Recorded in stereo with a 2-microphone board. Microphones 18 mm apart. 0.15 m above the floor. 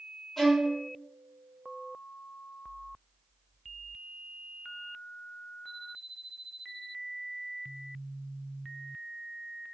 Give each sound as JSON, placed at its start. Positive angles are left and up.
{"t": 0.4, "sound": "a violin", "side_deg": 10, "distance_m": 1.5}